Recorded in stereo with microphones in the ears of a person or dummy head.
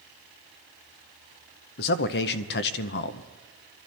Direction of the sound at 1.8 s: 55° left (ahead or behind).